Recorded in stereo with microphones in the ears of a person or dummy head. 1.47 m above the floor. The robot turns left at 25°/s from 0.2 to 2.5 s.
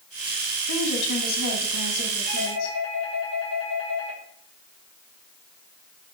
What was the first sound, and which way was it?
A woman speaking, 90° left.